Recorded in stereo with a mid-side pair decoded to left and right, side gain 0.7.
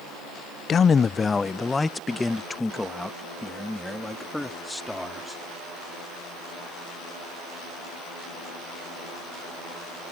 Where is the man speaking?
35° left; by 5.4 s 5° left.